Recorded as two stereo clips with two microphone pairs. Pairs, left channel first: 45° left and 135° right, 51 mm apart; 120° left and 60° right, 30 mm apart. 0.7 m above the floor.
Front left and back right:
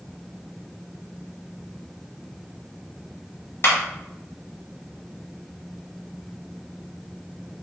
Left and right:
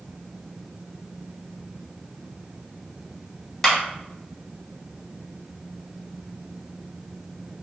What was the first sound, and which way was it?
A clap, 50° left.